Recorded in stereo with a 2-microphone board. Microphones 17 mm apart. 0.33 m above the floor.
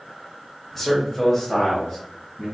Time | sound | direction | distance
0.8 | a man speaking | 25° left (ahead or behind) | 0.9 m